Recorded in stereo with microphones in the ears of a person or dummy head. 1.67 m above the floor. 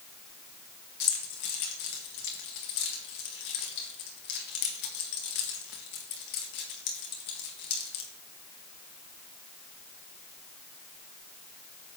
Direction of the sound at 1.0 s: 60° left (ahead or behind).